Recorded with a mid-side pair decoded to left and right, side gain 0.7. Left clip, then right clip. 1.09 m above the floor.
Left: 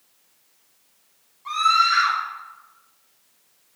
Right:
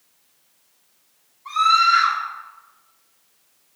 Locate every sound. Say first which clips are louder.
1.4 s a scream: right 2 dB; 35° left, 4 m